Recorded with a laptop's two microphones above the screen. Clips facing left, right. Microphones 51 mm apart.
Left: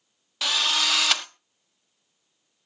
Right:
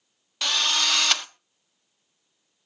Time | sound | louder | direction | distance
0.4 | a drill | even | centre (ahead or behind) | 0.7 m